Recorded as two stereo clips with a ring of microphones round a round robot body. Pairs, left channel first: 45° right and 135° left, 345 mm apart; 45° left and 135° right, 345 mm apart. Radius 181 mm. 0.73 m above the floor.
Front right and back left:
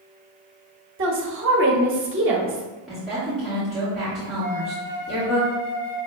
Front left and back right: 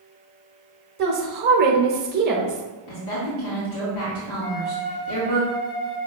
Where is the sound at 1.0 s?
175° left, 0.9 m.